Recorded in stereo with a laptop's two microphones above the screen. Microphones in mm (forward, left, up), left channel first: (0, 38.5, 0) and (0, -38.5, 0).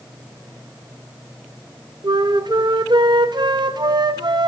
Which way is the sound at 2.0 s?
70° right (ahead or behind).